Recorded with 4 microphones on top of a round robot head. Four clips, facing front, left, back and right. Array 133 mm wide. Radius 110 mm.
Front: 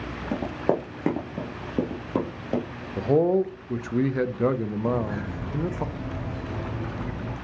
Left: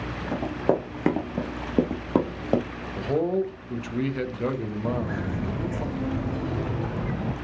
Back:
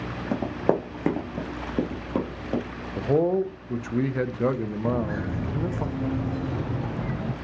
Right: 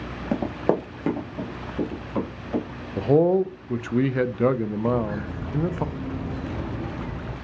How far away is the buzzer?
I don't hear a buzzer.